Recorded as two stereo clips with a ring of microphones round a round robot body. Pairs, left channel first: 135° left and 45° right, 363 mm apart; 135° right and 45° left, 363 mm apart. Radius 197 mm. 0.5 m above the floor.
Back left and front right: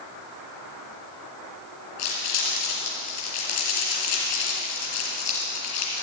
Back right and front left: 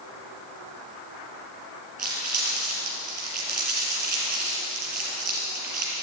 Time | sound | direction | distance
2.0 | crumpling | 115° left | 5.5 m